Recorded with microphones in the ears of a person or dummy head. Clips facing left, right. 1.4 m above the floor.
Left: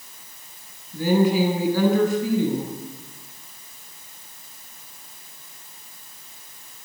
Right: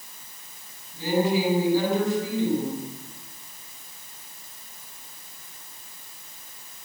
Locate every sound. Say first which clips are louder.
0.9 s a woman speaking: left 4 dB; 60° left (ahead or behind), 9 m